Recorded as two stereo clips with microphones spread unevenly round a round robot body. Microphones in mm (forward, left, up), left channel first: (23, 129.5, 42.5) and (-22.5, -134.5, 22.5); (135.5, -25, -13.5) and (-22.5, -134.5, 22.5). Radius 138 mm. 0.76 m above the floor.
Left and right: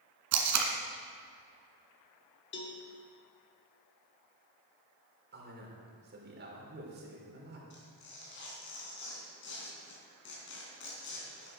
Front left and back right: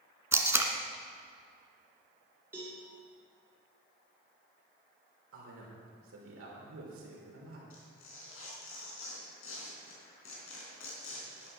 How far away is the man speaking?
About 3.5 m.